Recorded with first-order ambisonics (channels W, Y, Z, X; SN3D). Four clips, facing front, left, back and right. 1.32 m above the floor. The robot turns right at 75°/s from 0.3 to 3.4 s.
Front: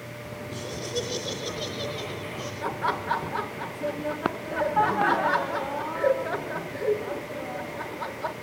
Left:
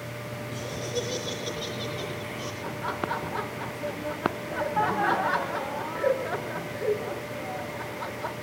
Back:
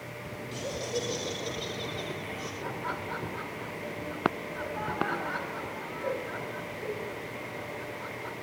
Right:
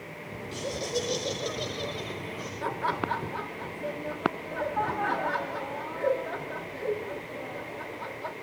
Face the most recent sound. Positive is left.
turn(degrees=30)